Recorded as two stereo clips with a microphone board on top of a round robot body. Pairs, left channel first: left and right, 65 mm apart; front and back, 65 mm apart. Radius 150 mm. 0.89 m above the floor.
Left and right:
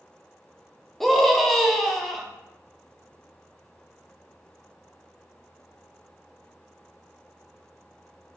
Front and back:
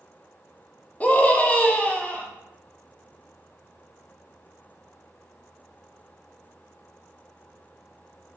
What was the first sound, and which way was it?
A scream, 5° left.